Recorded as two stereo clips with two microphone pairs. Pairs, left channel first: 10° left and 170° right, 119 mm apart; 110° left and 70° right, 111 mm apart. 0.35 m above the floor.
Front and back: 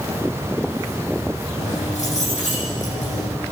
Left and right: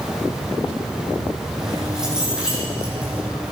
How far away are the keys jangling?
About 9.5 m.